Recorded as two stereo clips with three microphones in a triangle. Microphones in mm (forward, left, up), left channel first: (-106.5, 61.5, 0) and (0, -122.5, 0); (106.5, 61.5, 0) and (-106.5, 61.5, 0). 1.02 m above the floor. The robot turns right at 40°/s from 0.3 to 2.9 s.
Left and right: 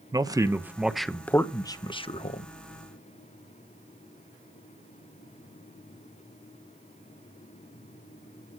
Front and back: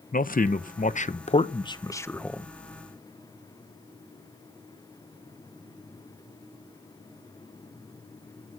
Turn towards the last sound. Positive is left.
turn(degrees=105)